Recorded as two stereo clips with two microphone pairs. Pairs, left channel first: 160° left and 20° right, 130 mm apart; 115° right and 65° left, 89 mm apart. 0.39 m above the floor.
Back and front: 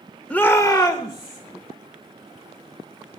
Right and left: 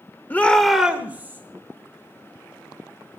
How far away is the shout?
About 0.9 m.